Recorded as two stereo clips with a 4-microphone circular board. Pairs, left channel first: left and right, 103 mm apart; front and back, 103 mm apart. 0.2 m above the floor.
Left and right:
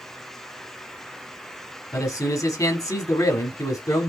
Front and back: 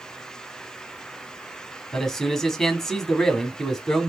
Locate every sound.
1.9 s a man speaking: 85° left, 1.2 m